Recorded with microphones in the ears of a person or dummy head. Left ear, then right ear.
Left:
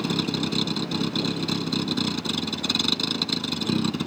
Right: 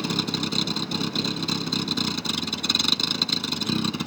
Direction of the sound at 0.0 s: 20° right (ahead or behind).